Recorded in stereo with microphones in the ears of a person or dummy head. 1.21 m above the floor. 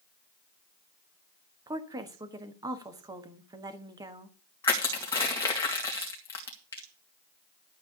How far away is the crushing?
About 2.5 m.